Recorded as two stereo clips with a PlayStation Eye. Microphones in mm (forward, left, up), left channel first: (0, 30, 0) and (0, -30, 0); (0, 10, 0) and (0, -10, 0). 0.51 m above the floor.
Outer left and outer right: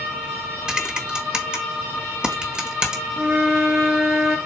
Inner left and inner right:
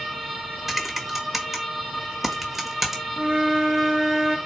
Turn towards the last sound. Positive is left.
turn(degrees=-10)  # may be behind; listen again after turning